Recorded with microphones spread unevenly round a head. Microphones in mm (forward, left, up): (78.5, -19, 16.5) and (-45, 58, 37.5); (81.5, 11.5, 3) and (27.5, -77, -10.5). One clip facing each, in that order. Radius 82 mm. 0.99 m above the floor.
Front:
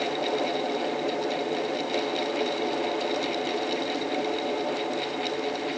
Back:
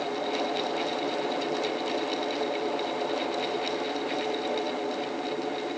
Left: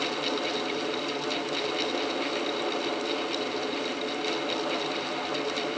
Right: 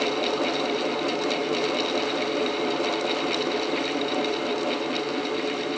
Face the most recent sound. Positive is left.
No sound to turn to.